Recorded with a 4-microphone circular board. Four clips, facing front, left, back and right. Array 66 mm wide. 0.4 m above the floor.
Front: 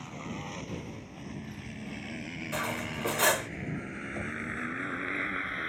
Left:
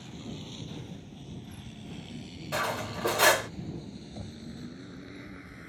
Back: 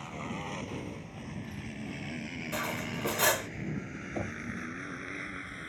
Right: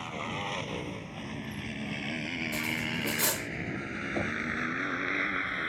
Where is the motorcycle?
95° right; by 5.7 s 55° right.